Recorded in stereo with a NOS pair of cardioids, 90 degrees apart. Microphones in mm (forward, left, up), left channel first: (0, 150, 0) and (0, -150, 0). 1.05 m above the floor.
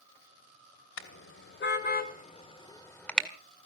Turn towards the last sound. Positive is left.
turn(degrees=0)